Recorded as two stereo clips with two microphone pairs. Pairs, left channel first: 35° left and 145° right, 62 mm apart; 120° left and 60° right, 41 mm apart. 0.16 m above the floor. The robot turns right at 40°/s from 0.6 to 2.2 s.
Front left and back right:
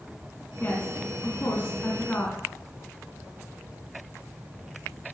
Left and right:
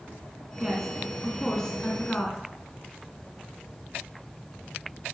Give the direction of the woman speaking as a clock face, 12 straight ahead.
12 o'clock.